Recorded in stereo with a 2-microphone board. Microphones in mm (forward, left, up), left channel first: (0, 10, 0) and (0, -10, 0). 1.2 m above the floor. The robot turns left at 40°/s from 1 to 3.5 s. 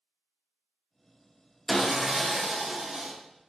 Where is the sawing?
10° left, 0.6 m; by 3.1 s 45° right, 0.6 m.